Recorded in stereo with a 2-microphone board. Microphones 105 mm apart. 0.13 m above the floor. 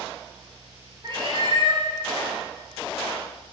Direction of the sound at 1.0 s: 45° right (ahead or behind).